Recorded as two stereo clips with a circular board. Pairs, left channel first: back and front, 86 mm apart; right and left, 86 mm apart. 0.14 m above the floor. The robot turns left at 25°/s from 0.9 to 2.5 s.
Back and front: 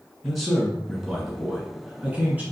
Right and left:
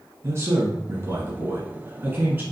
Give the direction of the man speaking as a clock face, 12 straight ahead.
9 o'clock.